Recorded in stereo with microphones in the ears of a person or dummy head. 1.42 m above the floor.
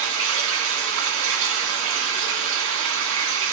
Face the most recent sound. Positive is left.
turn(degrees=-65)  # may be behind; listen again after turning